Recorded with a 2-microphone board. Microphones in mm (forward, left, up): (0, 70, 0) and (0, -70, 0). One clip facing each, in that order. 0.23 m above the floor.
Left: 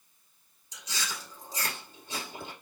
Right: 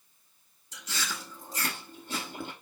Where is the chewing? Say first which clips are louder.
Right 2 dB; 55° right (ahead or behind), 1.2 m.